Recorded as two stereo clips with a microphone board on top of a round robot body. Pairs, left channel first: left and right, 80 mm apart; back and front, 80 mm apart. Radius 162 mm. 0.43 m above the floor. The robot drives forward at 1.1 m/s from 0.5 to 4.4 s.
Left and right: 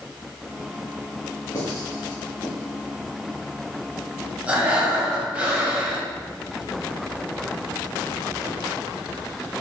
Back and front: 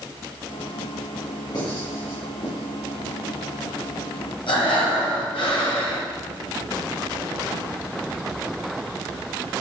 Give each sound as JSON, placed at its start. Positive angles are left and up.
{"t": 1.5, "sound": "writing", "azimuth_deg": 140, "distance_m": 2.5}
{"t": 4.5, "sound": "breathing", "azimuth_deg": -165, "distance_m": 1.5}